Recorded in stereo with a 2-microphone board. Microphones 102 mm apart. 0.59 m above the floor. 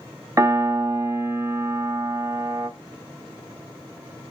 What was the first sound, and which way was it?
A piano, 30° right (ahead or behind).